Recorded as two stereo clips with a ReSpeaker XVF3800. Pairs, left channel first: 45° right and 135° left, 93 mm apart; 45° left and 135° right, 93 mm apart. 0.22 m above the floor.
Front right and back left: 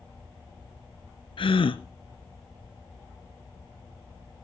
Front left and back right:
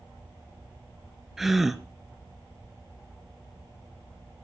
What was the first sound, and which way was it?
A gasp, 50° right.